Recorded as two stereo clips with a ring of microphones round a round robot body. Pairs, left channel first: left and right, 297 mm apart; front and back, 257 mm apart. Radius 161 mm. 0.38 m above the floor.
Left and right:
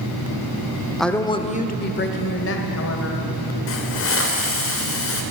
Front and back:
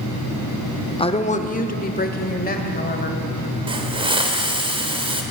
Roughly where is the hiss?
Behind left.